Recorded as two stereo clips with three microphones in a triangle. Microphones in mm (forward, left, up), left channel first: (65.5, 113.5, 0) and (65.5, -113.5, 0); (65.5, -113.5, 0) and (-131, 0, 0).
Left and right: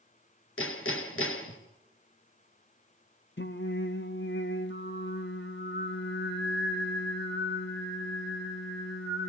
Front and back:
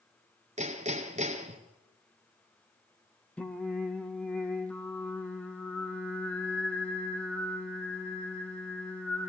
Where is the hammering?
95° left, 3 m.